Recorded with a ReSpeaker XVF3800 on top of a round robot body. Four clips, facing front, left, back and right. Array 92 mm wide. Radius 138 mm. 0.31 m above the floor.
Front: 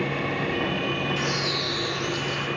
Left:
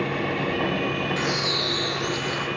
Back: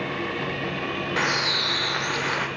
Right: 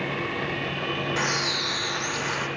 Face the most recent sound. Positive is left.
turn(degrees=-165)